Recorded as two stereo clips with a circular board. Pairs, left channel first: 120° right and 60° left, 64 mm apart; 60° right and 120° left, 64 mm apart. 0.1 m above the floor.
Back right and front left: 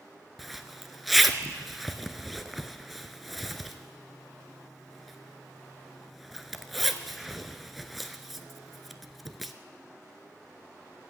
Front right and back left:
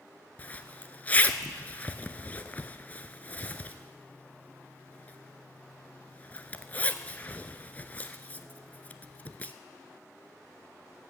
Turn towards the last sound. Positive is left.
turn(degrees=-30)